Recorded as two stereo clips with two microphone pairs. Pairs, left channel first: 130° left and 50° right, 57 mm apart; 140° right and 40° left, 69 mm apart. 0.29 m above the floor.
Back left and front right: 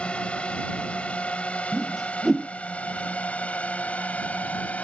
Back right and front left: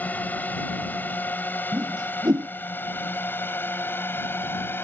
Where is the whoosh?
40° left.